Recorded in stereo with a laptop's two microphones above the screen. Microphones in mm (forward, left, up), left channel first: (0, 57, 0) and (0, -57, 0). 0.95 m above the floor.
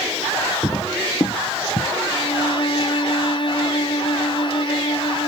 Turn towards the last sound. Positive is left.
turn(degrees=45)  # may be behind; listen again after turning